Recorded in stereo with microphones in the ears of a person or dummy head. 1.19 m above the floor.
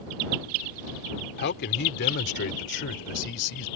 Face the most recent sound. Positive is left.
turn(degrees=65)  # may be behind; listen again after turning